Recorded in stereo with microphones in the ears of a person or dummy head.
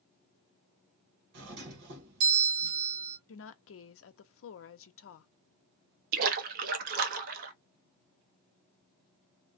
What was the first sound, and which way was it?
A doorbell, 65° right (ahead or behind).